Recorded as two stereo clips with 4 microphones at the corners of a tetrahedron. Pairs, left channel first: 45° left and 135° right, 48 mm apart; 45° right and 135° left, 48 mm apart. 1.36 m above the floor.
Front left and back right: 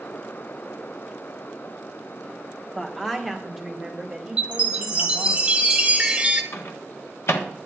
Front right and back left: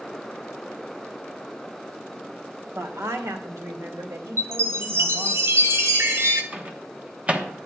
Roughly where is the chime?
Behind left.